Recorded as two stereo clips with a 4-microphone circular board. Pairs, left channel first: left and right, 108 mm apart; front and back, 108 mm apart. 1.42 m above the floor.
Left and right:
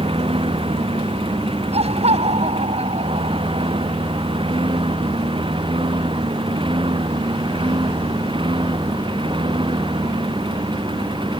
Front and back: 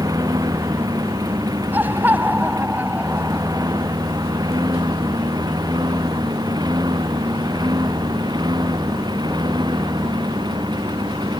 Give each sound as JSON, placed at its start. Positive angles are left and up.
{"t": 0.0, "sound": "a lawn mower", "azimuth_deg": -125}
{"t": 1.7, "sound": "laughter", "azimuth_deg": -105}